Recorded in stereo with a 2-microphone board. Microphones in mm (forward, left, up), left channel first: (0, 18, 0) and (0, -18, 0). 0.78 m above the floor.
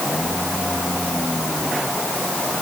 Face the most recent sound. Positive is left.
No sound to turn to.